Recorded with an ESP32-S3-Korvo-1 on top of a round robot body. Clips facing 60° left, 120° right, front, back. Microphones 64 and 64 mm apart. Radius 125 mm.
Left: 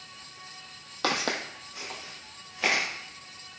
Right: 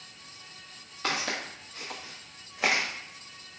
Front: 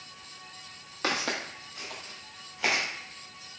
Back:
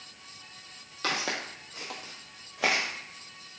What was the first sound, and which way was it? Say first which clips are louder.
Footsteps: left 3 dB, front 1 dB; 75° left.